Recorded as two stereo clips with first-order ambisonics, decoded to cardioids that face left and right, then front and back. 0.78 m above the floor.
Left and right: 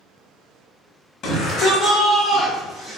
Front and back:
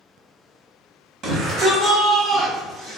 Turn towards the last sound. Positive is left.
turn(degrees=-150)